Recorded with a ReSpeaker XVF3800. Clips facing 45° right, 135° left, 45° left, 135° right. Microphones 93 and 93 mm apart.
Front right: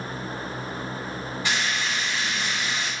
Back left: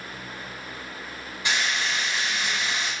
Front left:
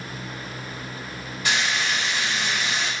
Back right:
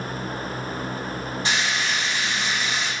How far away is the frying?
About 1.3 m.